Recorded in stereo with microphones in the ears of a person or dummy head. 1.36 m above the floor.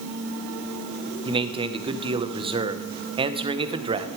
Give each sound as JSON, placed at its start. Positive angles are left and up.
{"t": 1.2, "sound": "a man speaking", "side_deg": -25, "distance_m": 0.8}